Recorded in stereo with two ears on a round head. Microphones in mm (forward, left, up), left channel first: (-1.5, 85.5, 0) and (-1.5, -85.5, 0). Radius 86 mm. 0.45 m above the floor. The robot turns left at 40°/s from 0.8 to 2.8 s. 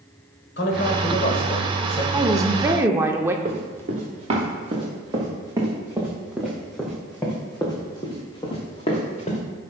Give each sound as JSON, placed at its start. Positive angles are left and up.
{"t": 0.6, "sound": "a man speaking", "azimuth_deg": 85, "distance_m": 1.7}
{"t": 2.1, "sound": "a woman speaking", "side_deg": -20, "distance_m": 0.7}
{"t": 3.5, "sound": "running footsteps", "side_deg": -40, "distance_m": 3.5}